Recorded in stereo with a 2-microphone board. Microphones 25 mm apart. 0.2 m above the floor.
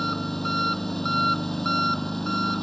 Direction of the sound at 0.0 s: 10° left (ahead or behind).